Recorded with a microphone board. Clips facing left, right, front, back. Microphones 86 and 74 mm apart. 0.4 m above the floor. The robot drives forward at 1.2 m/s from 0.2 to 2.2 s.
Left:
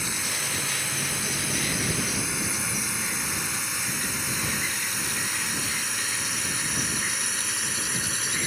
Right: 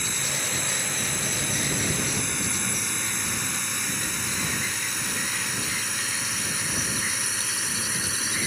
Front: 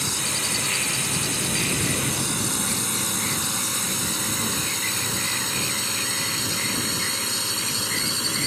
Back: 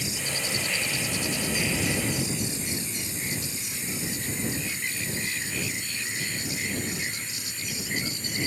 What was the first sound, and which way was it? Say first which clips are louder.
A drone: even, front 3 dB; 5° left.